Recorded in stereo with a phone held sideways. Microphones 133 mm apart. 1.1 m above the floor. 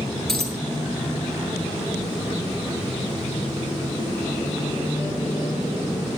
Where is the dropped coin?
5° left (ahead or behind), 7 m.